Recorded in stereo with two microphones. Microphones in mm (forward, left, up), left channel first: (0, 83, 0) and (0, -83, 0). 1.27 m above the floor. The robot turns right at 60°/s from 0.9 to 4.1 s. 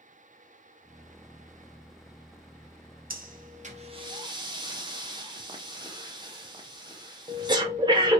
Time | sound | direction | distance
3.1 | breathing | 60° right (ahead or behind) | 0.8 m